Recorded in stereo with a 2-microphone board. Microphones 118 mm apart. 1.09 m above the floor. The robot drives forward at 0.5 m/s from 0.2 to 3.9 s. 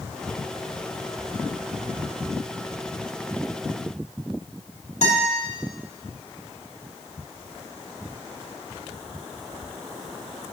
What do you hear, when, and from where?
5.0 s a guitar: 85° left, 2 m